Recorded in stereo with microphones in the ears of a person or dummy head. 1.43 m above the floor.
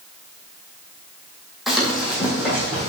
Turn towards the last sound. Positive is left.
turn(degrees=-10)  # may be behind; listen again after turning